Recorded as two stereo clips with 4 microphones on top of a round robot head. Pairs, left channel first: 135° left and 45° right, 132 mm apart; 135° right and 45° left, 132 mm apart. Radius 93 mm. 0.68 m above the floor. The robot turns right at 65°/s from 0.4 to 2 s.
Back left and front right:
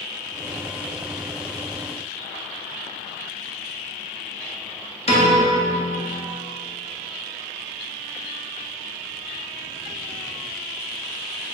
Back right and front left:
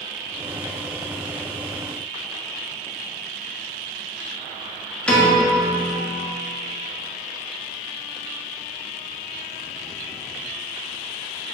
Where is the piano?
145° left, 1.6 m.